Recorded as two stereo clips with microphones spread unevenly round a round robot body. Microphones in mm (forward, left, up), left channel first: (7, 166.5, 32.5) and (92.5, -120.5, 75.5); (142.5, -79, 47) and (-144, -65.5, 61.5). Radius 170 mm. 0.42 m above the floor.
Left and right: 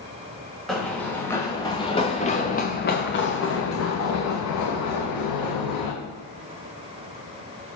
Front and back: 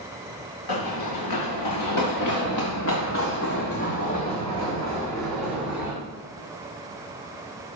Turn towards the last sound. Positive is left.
turn(degrees=90)